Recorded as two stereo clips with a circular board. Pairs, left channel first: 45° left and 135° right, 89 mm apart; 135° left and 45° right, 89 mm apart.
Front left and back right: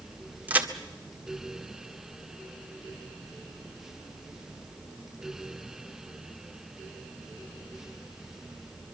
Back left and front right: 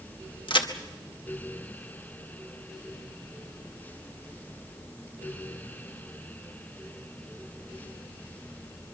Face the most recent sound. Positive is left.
turn(degrees=155)